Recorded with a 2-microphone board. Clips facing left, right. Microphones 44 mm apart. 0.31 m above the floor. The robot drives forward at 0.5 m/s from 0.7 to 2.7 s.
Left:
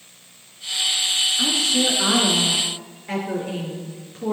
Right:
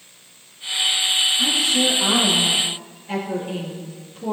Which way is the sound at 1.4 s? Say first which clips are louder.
Right 1 dB; 75° left (ahead or behind).